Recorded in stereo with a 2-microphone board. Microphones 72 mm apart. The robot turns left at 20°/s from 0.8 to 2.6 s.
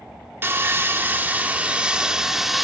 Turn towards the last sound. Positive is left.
turn(degrees=-175)